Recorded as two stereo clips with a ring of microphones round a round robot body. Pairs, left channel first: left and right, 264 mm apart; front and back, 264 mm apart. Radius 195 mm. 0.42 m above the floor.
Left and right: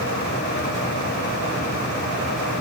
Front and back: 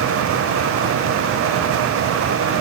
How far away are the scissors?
I don't hear scissors.